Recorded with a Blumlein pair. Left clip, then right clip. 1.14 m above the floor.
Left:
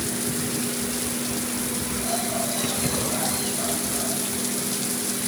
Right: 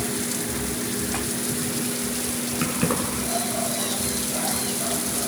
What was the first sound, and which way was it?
Keys jangling, 55° right.